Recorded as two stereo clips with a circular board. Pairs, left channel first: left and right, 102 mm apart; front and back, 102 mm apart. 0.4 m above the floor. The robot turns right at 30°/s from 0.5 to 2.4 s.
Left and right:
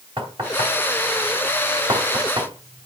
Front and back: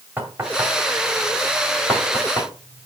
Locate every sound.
0.2 s knocking: 110° right, 2.0 m; by 2.9 s 55° right, 2.0 m